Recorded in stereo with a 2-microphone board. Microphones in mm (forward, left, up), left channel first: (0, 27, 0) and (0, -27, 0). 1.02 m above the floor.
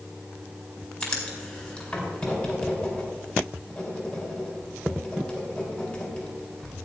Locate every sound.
1.0 s writing: 25° left (ahead or behind), 4.5 m